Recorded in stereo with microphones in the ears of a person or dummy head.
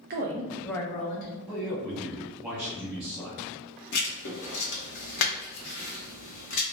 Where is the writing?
60° left (ahead or behind), 0.7 m.